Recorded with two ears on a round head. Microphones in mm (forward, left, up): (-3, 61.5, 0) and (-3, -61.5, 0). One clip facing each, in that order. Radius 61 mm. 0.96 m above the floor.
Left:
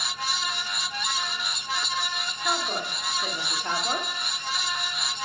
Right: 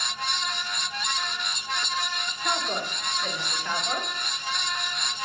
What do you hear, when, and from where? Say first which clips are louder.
2.4 s a woman speaking: even; 5° right (ahead or behind), 2.5 m; by 4.1 s 35° left (ahead or behind), 2 m